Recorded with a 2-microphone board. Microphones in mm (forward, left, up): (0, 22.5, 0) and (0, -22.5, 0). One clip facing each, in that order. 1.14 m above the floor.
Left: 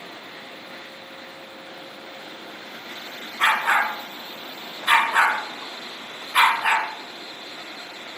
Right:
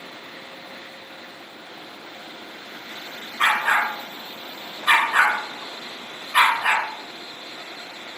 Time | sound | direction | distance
3.4 | a dog barking | 40° right (ahead or behind) | 1.4 m